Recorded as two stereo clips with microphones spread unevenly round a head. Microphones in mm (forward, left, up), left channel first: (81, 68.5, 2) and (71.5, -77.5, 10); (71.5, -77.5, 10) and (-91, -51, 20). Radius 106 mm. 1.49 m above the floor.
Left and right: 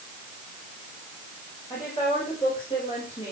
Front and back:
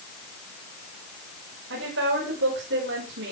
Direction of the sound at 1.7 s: 160° left.